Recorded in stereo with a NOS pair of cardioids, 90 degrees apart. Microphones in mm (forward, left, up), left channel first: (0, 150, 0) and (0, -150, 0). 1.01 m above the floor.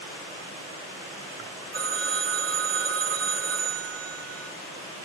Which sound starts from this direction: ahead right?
A phone ringing, at 1.7 s.